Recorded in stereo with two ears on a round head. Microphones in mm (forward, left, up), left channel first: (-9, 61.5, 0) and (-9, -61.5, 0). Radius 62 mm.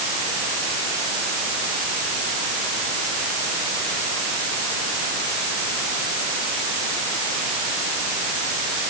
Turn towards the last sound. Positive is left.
No sound to turn to.